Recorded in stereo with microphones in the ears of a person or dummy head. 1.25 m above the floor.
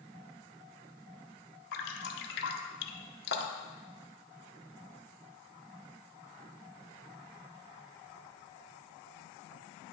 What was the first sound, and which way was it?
Dripping, 60° left (ahead or behind).